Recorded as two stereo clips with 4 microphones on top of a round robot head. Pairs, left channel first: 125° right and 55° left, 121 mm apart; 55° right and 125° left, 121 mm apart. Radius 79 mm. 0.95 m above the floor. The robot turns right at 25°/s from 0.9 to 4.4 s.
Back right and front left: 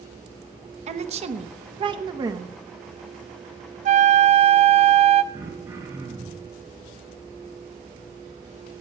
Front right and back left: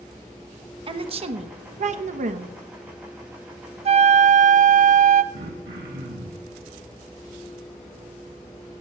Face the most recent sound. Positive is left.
turn(degrees=125)